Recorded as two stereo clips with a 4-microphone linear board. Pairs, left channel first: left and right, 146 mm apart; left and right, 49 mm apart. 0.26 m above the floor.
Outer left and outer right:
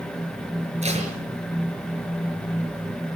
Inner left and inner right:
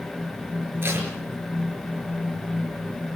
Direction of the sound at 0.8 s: 50° right (ahead or behind).